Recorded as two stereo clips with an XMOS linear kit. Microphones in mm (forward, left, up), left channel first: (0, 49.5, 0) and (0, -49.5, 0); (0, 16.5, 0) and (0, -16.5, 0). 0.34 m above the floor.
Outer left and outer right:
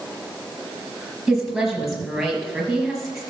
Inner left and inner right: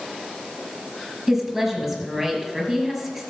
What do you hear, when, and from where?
1.3 s a woman speaking: 5° right (ahead or behind), 5 m